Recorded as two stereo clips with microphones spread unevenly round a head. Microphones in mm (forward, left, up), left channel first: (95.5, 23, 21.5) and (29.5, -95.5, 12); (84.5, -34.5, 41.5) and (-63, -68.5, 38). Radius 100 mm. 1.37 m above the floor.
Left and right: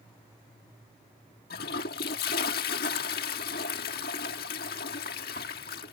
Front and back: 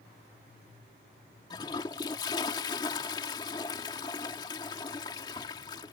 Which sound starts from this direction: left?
A toilet flushing, at 1.5 s.